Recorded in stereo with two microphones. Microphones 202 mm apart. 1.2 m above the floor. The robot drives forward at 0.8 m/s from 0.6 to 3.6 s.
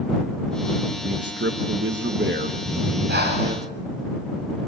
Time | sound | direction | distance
1.0 | a man speaking | 65° right (ahead or behind) | 1.2 m
2.6 | breathing | 65° right (ahead or behind) | 7 m